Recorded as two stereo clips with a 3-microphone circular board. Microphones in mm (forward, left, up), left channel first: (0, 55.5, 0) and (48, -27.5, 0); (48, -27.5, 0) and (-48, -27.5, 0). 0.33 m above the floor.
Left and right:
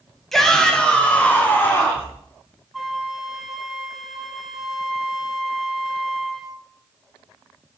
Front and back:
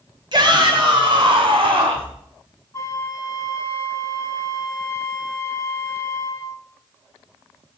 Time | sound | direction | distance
0.3 | a shout | 155° right | 1.6 m
2.7 | a flute | 30° left | 1.1 m